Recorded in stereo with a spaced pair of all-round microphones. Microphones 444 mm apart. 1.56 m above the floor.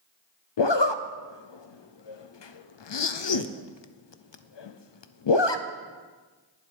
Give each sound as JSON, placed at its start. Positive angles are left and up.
{"t": 0.6, "sound": "a zipper", "side_deg": 75, "distance_m": 0.6}